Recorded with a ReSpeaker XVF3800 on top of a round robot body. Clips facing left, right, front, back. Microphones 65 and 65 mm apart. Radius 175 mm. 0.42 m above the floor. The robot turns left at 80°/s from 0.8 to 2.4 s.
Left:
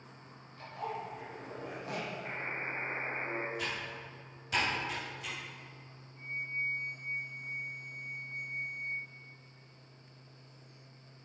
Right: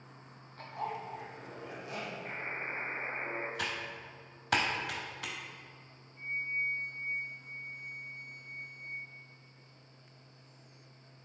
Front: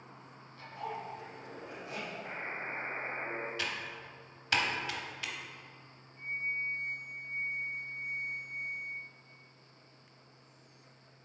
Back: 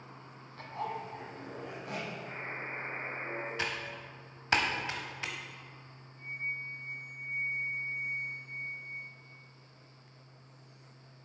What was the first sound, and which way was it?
A zipper, 135° right.